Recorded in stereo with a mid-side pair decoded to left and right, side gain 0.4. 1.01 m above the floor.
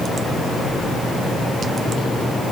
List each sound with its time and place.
Only background noise.